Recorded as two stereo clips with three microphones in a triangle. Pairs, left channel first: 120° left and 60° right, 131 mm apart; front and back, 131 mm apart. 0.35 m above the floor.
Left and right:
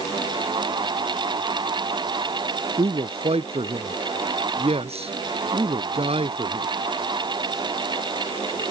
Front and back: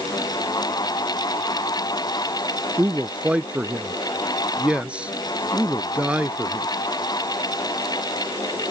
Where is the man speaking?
100° right.